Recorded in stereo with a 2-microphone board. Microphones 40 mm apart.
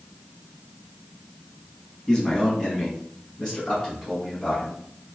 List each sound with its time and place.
2.1 s a man speaking: 20° left (ahead or behind), 1.1 m; by 4.8 s 15° left (ahead or behind), 2 m